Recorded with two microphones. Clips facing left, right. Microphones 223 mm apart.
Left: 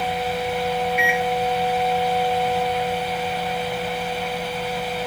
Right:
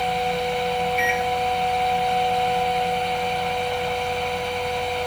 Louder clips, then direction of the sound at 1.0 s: Left 1 dB; 10° left (ahead or behind).